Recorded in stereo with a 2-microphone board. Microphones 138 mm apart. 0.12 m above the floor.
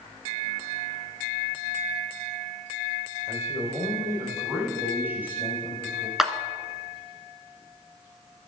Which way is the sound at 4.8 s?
15° right (ahead or behind).